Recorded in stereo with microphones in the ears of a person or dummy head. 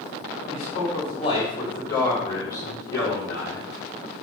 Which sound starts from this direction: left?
A man speaking, at 0.5 s.